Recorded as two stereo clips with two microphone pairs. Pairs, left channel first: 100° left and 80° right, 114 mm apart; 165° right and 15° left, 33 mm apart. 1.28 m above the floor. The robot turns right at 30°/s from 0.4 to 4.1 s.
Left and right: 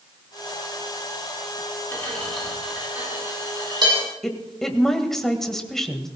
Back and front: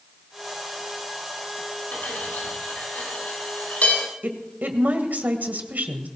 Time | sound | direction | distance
1.9 | cutlery clinking | 170° left | 8 m
4.2 | a woman speaking | 10° left | 1.6 m